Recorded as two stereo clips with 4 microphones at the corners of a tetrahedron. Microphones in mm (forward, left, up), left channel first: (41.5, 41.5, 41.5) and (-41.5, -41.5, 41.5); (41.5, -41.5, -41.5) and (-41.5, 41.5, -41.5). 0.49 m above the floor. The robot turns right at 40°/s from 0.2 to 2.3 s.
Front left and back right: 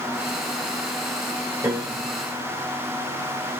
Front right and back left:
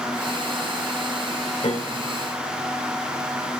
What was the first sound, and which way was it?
A piano, 70° right.